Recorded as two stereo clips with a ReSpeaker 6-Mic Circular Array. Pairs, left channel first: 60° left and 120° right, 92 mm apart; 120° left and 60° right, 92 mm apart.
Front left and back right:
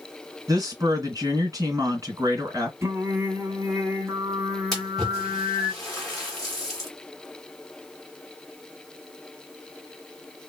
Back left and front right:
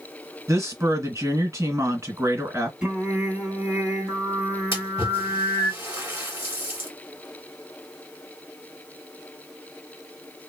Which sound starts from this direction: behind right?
Singing, at 2.8 s.